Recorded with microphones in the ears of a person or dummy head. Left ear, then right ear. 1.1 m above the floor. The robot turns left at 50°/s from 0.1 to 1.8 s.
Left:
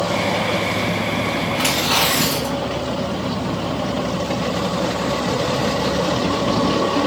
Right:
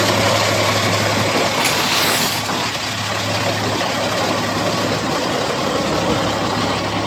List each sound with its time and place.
1.5 s tearing paper: 15° left (ahead or behind), 2.5 m; by 2.8 s 30° left (ahead or behind), 2.5 m